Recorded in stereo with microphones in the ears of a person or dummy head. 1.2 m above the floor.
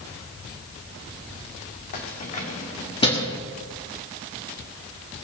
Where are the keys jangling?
50° left (ahead or behind), 2 m; by 3.4 s 25° left (ahead or behind), 1.6 m.